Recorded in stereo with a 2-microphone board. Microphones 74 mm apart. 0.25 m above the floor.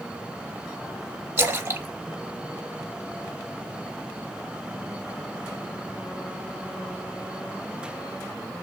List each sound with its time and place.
1.4 s a splash: 35° right (ahead or behind), 0.9 m